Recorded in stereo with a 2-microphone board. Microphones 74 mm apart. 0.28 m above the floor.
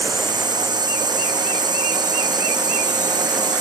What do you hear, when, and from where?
0.0 s a drone: 80° right; by 3.6 s 75° right (ahead or behind)